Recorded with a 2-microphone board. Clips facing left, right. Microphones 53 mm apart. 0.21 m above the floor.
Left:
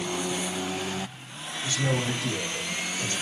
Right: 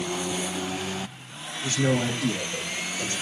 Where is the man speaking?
60° right (ahead or behind), 4.5 m; by 3.1 s 70° right (ahead or behind), 5.5 m.